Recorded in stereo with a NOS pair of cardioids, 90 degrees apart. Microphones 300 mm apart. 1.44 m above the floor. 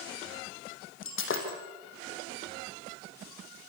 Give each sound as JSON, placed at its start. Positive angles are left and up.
{"t": 1.0, "sound": "breaking glass", "azimuth_deg": 45, "distance_m": 6.0}